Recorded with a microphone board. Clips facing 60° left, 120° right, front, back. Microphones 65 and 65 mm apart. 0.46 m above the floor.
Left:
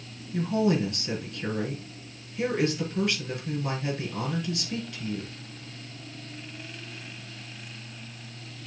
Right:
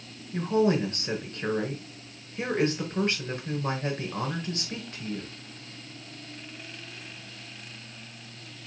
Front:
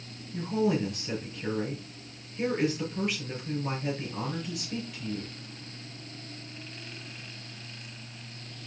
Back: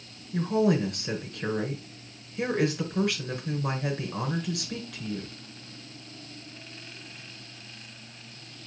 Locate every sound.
0.3 s a woman speaking: 170° right, 5 m